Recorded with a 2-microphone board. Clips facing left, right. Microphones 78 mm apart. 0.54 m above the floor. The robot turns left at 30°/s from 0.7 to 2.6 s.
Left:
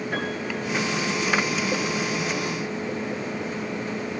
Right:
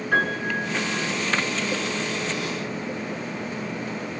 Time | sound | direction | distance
0.1 | a piano | 70° right (ahead or behind) | 7.5 m